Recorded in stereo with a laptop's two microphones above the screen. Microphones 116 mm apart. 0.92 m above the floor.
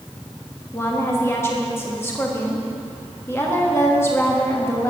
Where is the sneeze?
I don't hear a sneeze.